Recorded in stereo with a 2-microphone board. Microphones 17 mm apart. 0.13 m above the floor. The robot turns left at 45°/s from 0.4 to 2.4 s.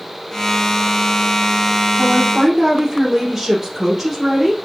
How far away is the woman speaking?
About 3 m.